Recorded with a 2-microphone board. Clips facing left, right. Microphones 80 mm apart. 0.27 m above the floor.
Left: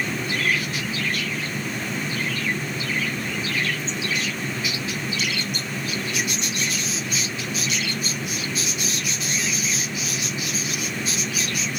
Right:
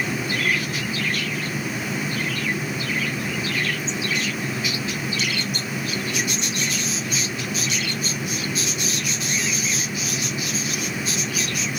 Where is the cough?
I don't hear a cough.